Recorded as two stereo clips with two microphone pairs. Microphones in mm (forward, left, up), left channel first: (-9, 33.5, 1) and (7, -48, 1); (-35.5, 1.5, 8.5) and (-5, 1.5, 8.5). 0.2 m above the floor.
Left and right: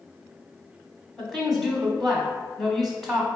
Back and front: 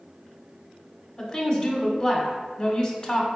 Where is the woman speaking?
175° right, 1.2 m.